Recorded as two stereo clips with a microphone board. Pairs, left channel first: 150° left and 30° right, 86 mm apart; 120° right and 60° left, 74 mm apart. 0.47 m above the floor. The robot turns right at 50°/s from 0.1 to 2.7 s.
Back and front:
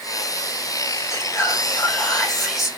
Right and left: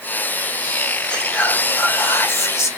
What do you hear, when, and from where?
1.1 s whispering: 170° left, 0.9 m; by 2.7 s 110° right, 0.9 m